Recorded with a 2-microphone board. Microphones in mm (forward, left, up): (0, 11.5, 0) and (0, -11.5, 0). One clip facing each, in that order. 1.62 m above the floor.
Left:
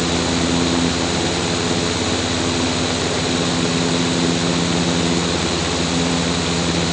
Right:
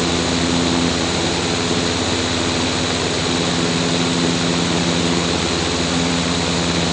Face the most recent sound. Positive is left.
No sound to turn to.